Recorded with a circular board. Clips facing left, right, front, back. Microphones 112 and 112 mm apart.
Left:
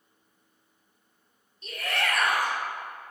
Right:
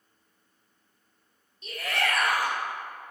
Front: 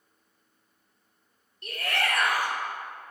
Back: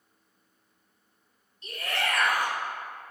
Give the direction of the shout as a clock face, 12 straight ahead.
12 o'clock.